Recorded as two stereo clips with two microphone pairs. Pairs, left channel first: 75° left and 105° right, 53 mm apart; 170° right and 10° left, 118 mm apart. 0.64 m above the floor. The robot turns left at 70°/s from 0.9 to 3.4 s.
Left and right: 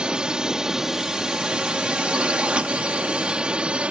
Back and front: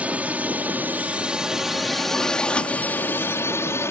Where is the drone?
55° right; by 3.9 s 135° right.